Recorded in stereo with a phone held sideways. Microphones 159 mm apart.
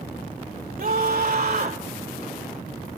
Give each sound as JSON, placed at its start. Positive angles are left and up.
{"t": 0.8, "sound": "a scream", "side_deg": -70, "distance_m": 4.5}